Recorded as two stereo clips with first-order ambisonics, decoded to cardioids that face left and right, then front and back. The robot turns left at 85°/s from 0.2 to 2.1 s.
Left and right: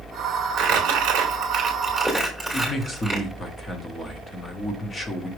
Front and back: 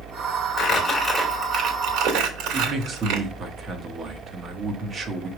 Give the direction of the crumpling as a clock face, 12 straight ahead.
2 o'clock.